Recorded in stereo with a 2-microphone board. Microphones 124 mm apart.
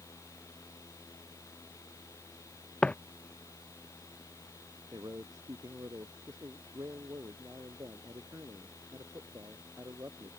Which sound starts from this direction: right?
A man speaking, at 4.9 s.